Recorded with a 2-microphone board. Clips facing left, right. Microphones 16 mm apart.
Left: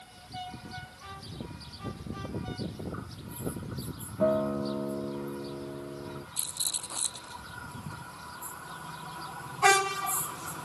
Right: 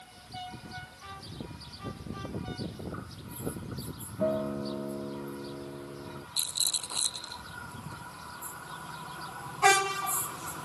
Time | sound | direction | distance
4.2 | a guitar | 30° left (ahead or behind) | ?
6.4 | a rattle | 60° right (ahead or behind) | ?